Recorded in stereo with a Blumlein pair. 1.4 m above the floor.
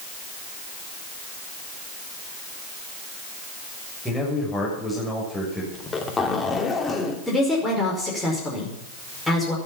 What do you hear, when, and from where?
4.0 s a man speaking: 5° left, 6 m
5.7 s a zipper: 15° left, 3 m
7.3 s a woman speaking: 5° left, 5.5 m